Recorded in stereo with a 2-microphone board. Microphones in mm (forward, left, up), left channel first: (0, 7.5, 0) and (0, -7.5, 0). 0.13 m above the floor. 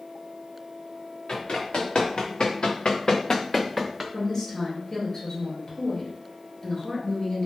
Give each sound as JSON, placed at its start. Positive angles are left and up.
{"t": 1.3, "sound": "running footsteps", "side_deg": 70, "distance_m": 1.6}
{"t": 4.1, "sound": "a woman speaking", "side_deg": 35, "distance_m": 1.8}